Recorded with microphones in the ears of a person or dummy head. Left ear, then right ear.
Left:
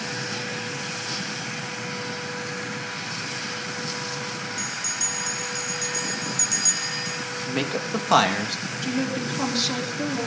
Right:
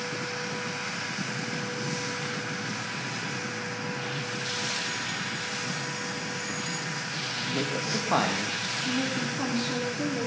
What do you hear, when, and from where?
4.6 s a bell: 70° left (ahead or behind), 4 m
7.5 s a man speaking: 75° left (ahead or behind), 2.5 m
8.8 s a woman speaking: 50° left (ahead or behind), 4.5 m